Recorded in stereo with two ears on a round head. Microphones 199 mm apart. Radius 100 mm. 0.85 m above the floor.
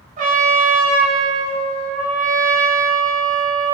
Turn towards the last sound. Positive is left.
turn(degrees=-35)  # may be behind; listen again after turning